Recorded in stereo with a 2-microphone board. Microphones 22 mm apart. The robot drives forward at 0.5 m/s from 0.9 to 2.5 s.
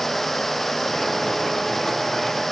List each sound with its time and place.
Only background noise.